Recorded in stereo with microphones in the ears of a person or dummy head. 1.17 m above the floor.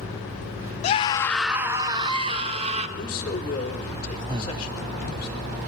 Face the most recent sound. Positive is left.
turn(degrees=-20)  # may be behind; listen again after turning